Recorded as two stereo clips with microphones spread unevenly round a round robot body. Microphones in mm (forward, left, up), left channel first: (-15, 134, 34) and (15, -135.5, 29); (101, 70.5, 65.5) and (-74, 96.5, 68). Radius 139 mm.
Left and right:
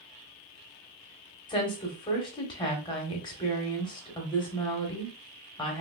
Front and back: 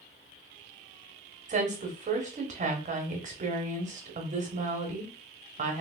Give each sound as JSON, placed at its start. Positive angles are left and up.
{"t": 1.5, "sound": "a woman speaking", "azimuth_deg": 160, "distance_m": 1.1}